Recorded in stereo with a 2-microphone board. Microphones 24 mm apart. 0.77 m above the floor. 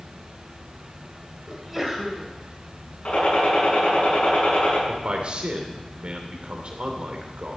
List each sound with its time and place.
1.5 s a sneeze: centre (ahead or behind), 4 m
3.0 s a gunshot: 70° left (ahead or behind), 6.5 m
4.9 s a man speaking: 50° right (ahead or behind), 2.5 m